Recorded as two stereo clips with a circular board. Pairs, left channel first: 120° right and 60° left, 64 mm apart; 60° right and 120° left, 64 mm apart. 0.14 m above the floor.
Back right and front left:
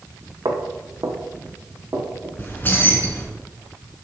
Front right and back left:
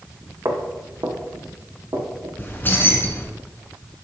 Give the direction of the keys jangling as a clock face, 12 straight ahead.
3 o'clock.